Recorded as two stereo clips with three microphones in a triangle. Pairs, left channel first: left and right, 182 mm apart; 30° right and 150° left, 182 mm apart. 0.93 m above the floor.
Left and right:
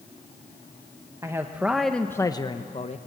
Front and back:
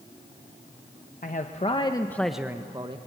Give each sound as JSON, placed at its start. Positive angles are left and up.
{"t": 1.2, "sound": "a man speaking", "azimuth_deg": -25, "distance_m": 1.1}